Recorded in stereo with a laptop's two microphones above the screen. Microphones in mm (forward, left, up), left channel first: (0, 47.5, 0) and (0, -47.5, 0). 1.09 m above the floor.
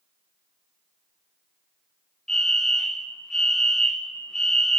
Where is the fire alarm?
5° left (ahead or behind), 1.0 m.